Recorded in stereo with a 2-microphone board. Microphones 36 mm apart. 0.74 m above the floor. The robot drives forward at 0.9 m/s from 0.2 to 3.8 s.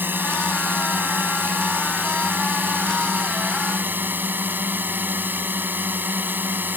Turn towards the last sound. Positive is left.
turn(degrees=-65)  # may be behind; listen again after turning